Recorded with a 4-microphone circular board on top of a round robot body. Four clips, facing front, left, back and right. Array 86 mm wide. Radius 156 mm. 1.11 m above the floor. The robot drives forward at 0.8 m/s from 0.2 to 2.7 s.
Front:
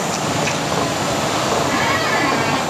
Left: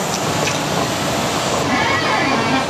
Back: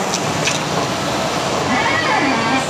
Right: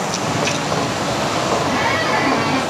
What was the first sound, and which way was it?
A squeak, 160° left.